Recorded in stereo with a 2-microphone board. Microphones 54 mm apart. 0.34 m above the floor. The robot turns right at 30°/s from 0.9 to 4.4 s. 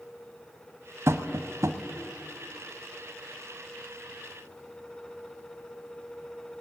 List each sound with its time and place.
1.1 s tapping: 55° right (ahead or behind), 1.2 m; by 1.8 s 70° right (ahead or behind), 1.2 m